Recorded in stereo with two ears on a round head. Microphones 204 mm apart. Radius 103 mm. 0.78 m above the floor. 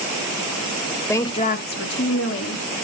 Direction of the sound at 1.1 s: 10° left (ahead or behind).